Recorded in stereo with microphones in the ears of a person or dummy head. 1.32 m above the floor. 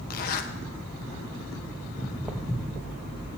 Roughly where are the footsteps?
Centre.